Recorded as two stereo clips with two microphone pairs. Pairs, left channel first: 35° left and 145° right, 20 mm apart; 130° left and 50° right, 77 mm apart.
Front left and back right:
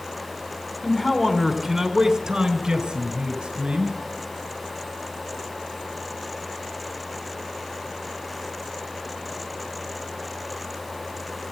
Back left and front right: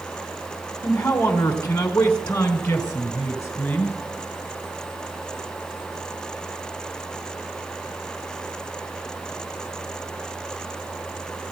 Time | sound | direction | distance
0.8 | a man speaking | 85° left | 1.2 m